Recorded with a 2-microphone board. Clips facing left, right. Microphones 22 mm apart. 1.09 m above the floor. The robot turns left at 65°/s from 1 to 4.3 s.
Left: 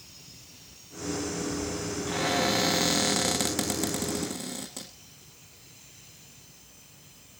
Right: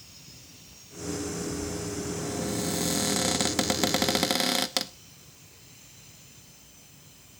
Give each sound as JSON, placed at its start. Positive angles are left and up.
{"t": 2.1, "sound": "a cupboard door", "azimuth_deg": 85, "distance_m": 0.9}